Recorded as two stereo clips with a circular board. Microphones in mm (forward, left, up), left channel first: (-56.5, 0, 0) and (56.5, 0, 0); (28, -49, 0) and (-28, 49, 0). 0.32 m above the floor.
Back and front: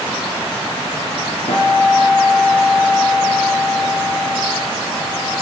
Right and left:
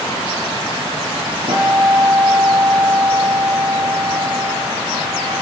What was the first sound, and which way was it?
A guitar, 155° left.